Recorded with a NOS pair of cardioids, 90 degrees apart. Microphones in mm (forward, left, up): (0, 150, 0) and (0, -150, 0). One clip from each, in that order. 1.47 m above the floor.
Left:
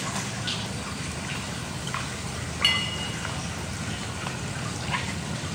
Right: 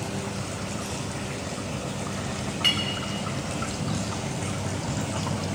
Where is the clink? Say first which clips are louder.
Left 1 dB; 20° left, 4 m.